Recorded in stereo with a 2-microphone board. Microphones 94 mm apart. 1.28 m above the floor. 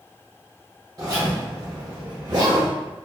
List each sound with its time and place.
1.0 s a zipper: 40° right (ahead or behind), 1.1 m